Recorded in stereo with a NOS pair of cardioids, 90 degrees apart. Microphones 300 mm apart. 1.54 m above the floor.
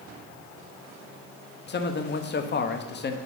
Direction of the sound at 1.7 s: 35° left.